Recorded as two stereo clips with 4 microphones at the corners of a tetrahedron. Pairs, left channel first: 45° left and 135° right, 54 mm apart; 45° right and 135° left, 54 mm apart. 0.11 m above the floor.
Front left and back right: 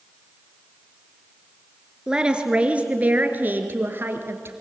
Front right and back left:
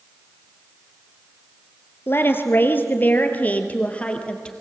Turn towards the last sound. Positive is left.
turn(degrees=-110)